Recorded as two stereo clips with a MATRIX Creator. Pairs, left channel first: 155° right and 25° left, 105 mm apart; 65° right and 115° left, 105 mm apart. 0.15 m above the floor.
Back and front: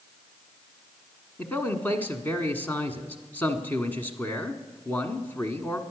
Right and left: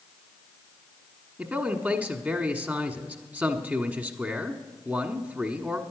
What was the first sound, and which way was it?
A man speaking, 160° left.